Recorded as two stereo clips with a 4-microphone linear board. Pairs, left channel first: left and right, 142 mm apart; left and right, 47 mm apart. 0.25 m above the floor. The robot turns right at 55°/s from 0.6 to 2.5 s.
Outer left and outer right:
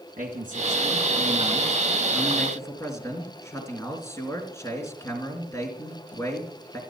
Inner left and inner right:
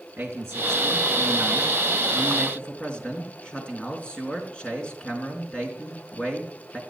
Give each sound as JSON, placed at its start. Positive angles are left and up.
{"t": 0.2, "sound": "a man speaking", "azimuth_deg": -85, "distance_m": 3.5}